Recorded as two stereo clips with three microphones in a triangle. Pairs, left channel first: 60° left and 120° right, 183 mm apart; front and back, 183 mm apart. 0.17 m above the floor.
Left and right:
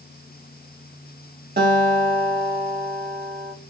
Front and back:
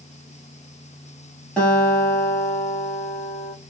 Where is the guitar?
85° right, 1.8 m.